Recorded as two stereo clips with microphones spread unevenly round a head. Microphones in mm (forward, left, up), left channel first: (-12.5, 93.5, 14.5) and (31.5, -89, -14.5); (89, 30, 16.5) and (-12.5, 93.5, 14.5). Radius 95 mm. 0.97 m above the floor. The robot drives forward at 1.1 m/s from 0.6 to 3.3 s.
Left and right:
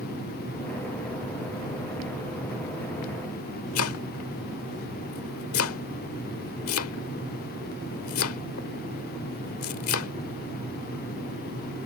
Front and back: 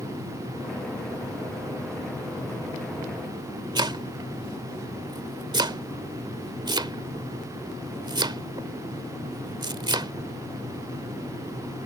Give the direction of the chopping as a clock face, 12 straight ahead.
9 o'clock.